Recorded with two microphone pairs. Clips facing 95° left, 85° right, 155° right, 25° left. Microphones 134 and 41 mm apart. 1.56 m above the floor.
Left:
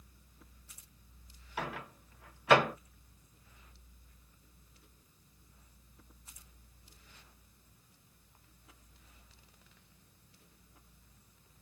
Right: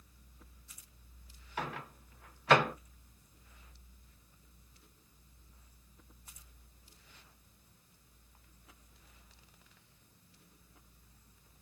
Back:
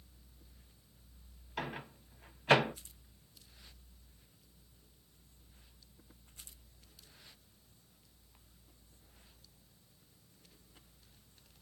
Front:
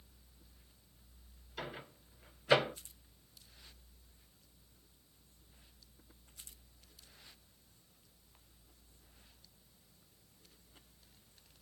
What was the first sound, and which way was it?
A microwave, 175° left.